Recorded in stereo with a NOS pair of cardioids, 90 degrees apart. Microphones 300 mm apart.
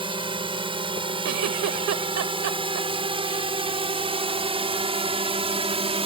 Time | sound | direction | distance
0.0 | a drone | 15° right | ?
1.2 | a giggle | 65° right | ?